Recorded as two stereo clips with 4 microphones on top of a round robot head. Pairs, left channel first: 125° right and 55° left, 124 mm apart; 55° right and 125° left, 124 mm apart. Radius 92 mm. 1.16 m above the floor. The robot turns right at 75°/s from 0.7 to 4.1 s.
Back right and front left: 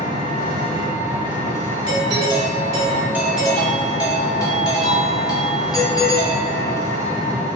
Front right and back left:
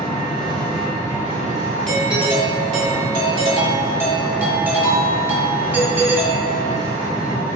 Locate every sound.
0.0 s an engine running: 35° left, 1.8 m; by 7.6 s 70° right, 1.8 m
1.9 s a doorbell: 25° left, 1.3 m; by 6.9 s 165° right, 1.3 m